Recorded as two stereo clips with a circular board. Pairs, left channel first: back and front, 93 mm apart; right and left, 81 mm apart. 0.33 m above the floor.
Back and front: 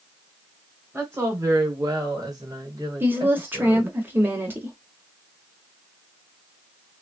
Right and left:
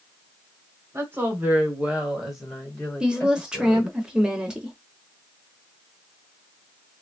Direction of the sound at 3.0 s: 30° left.